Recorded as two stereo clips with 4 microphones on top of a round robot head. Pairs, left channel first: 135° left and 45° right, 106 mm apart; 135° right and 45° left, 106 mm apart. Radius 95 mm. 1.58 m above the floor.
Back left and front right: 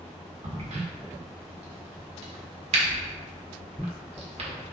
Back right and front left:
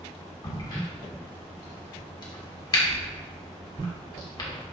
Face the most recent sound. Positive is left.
turn(degrees=-80)